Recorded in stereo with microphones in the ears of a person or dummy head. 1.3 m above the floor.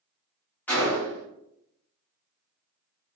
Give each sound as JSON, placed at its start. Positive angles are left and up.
{"t": 0.7, "sound": "a gunshot", "side_deg": 5, "distance_m": 1.4}